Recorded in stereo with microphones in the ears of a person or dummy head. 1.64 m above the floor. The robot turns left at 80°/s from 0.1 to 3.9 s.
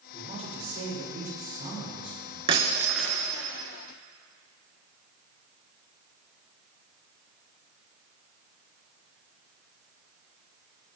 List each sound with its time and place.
0.1 s a woman speaking: 20° right, 7 m; by 2.4 s 160° left, 7 m
2.5 s breaking glass: 140° right, 3.5 m; by 3.3 s 155° left, 3.5 m